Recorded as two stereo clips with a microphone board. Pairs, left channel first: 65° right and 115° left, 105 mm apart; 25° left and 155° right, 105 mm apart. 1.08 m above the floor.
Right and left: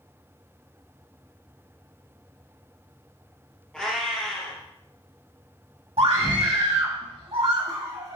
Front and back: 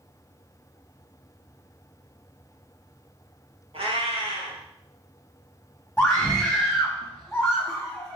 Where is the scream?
110° left, 1.8 m.